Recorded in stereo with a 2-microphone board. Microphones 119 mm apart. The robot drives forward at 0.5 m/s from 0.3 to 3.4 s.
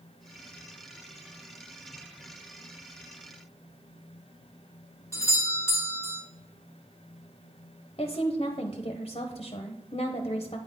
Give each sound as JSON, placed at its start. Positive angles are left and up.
{"t": 5.1, "sound": "a doorbell", "side_deg": 25, "distance_m": 1.4}
{"t": 8.0, "sound": "a woman speaking", "side_deg": 50, "distance_m": 0.6}